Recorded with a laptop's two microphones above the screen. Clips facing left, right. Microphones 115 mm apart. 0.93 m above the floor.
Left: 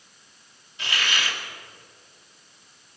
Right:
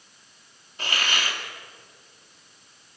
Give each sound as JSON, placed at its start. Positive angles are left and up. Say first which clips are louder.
{"t": 0.8, "sound": "a hiss", "louder": "even", "side_deg": -40, "distance_m": 2.5}